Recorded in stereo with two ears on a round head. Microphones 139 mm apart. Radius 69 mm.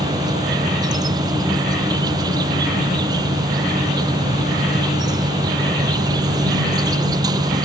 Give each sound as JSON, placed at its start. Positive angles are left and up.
{"t": 0.0, "sound": "an insect", "side_deg": -25}